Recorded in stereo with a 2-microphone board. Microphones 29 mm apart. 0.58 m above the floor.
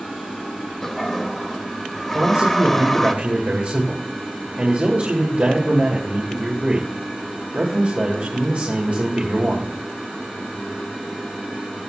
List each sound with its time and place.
0.8 s a toilet flushing: 10° left (ahead or behind), 1.0 m
2.1 s a man speaking: 45° right (ahead or behind), 2 m